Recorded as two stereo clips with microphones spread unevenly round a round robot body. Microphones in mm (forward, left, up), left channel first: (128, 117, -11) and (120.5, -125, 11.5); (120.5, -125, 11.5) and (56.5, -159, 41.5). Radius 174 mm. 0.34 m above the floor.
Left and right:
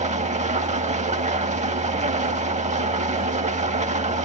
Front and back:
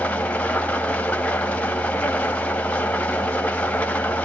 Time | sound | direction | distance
0.0 | an engine running | 30° right | 1.5 m